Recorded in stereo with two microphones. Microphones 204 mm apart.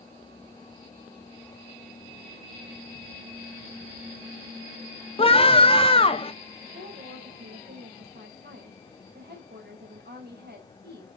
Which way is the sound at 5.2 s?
25° left (ahead or behind).